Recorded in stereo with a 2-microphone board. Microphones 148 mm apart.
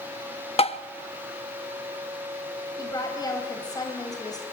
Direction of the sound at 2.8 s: 25° left (ahead or behind).